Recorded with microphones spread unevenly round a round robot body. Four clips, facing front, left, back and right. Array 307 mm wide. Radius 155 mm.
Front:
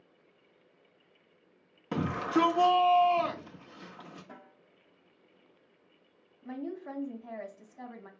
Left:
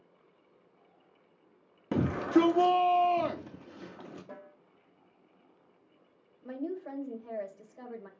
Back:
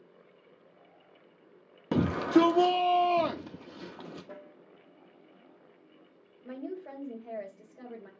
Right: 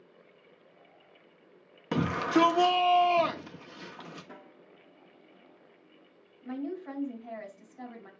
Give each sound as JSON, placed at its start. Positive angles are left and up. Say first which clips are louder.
{"t": 1.9, "sound": "a shout", "louder": "left 1 dB, back 5 dB", "azimuth_deg": 175, "distance_m": 0.6}
{"t": 4.3, "sound": "a snare drum", "louder": "left 2 dB, back 5 dB", "azimuth_deg": 140, "distance_m": 3.5}
{"t": 6.4, "sound": "a woman speaking", "louder": "right 1 dB, front 1 dB", "azimuth_deg": 130, "distance_m": 3.0}